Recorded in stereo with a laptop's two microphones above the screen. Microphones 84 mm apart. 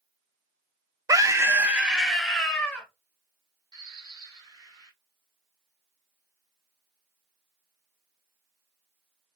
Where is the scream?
45° right (ahead or behind), 0.6 m; by 2.9 s 15° left (ahead or behind), 1.0 m.